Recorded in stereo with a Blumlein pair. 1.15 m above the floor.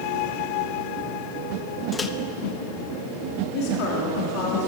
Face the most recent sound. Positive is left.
turn(degrees=40)